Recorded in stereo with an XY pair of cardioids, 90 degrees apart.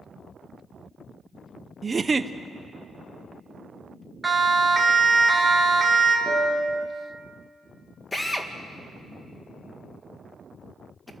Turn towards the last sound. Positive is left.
turn(degrees=20)